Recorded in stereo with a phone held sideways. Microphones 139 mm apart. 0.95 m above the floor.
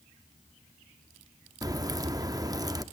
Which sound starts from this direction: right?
A crack, at 1.6 s.